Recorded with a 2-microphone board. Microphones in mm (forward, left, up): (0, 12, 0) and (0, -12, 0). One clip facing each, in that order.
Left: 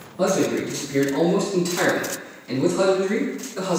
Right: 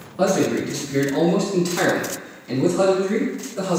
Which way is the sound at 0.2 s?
40° right (ahead or behind).